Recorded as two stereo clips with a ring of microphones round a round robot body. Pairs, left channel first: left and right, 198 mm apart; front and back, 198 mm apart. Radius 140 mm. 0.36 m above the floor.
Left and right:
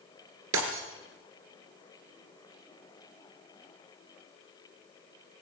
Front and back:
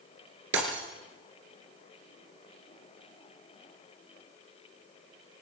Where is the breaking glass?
130° right, 2.5 m.